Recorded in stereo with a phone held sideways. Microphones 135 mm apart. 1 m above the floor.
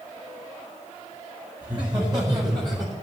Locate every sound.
1.6 s laughter: 30° right (ahead or behind), 4.5 m; by 2.9 s 35° right (ahead or behind), 3.5 m